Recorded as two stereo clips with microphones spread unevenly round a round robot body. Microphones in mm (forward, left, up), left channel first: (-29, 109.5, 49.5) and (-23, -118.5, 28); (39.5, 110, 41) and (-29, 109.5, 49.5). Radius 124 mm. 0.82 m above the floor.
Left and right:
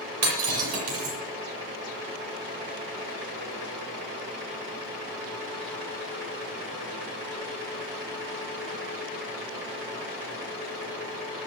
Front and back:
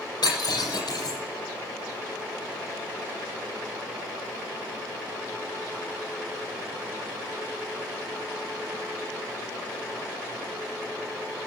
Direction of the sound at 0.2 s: 55° right.